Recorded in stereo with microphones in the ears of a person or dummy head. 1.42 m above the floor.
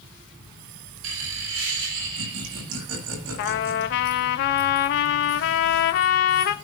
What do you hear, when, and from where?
1.0 s laughter: 75° right (ahead or behind), 6 m
3.4 s a trumpet: 50° left (ahead or behind), 1.0 m